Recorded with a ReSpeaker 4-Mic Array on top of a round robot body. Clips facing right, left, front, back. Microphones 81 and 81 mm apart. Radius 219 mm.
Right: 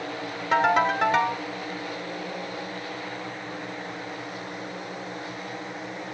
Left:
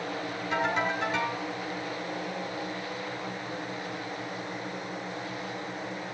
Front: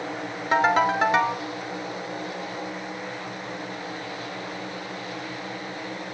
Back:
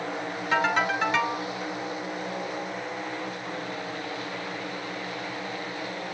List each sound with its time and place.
0.5 s a ringtone: 50° right, 0.6 m